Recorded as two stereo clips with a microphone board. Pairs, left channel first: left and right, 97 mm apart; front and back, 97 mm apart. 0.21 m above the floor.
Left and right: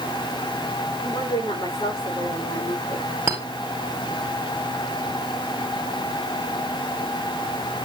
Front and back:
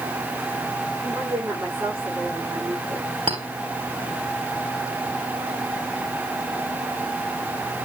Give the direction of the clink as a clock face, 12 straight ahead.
5 o'clock.